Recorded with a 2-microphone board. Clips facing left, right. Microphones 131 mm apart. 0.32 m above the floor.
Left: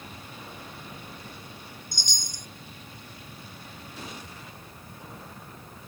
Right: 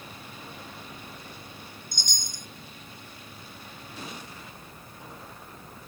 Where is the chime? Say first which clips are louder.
Even; 55° right (ahead or behind).